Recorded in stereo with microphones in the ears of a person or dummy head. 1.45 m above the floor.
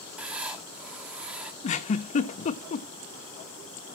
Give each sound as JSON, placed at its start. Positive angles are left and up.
{"t": 0.2, "sound": "writing", "side_deg": -15, "distance_m": 1.3}
{"t": 1.6, "sound": "a giggle", "side_deg": 35, "distance_m": 1.1}